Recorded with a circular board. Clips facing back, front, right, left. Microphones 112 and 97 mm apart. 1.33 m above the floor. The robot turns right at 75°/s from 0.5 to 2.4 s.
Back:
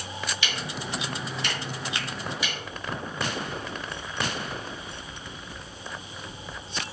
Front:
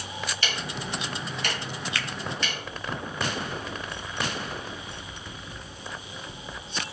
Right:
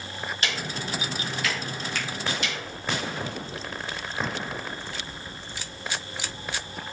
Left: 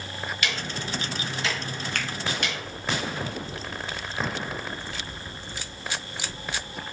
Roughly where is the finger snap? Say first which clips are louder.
Front 2 dB, left 2 dB; behind left.